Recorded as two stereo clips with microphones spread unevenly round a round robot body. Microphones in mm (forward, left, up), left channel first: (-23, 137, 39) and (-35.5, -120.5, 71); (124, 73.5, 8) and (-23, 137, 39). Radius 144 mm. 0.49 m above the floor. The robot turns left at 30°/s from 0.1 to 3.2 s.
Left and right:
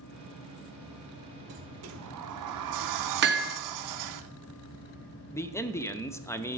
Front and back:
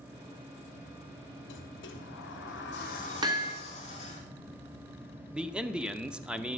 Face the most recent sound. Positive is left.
turn(degrees=50)